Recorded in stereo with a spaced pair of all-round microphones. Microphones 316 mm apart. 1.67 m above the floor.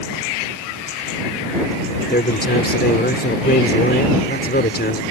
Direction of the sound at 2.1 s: 30° left (ahead or behind).